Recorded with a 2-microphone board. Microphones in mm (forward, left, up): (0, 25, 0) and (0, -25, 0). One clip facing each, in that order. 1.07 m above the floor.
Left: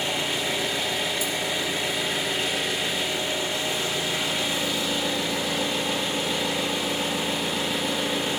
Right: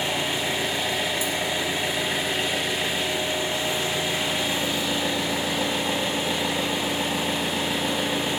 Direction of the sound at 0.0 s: 30° right (ahead or behind).